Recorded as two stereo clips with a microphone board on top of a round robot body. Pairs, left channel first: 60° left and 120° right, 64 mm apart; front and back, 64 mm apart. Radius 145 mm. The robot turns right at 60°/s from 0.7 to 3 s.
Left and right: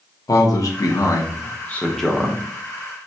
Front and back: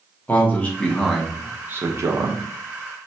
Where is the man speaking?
65° left, 1.2 m; by 2.4 s 165° left, 1.2 m.